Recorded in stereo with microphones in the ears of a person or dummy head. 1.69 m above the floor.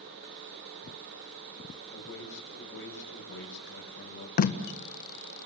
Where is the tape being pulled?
45° left (ahead or behind), 1.4 m.